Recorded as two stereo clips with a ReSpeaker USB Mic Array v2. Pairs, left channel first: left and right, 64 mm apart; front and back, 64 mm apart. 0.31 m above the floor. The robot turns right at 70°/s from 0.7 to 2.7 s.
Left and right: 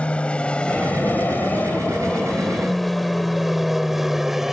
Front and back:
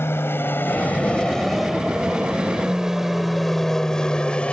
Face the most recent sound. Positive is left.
turn(degrees=-15)